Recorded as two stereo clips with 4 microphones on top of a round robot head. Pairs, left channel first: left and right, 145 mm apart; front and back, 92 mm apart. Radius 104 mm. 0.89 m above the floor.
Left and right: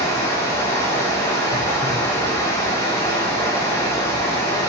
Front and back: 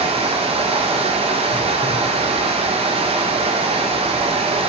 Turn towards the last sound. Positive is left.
turn(degrees=165)